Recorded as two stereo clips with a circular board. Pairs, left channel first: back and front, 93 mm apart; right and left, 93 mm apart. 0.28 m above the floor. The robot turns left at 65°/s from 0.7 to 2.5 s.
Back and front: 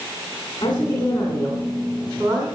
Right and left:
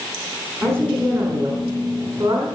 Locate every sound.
0.6 s a woman speaking: 145° left, 2.5 m; by 2.5 s 35° left, 2.5 m